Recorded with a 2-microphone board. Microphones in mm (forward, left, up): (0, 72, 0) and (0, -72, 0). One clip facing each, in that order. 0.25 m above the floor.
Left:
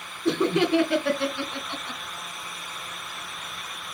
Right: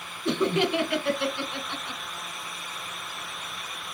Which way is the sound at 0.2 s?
40° left (ahead or behind).